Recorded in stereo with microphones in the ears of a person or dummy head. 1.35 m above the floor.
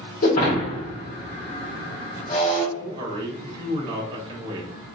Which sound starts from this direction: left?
Breaking glass, at 0.2 s.